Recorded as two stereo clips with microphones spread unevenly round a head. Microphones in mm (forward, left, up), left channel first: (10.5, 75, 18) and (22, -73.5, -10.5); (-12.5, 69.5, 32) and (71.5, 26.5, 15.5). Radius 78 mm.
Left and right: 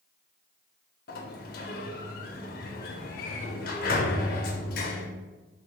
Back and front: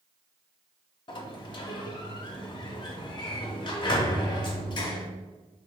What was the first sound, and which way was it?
A sliding door, 115° left.